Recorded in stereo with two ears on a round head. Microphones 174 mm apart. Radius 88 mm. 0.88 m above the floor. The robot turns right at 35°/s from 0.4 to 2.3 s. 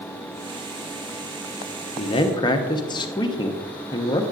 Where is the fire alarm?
I don't hear a fire alarm.